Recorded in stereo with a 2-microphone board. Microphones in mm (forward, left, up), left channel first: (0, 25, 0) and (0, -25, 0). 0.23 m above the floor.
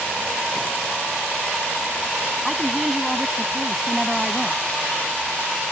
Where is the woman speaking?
5° right (ahead or behind).